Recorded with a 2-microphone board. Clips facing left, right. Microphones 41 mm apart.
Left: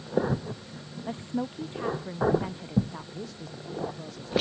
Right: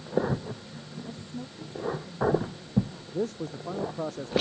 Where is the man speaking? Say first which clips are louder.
Right 8 dB; 55° right (ahead or behind).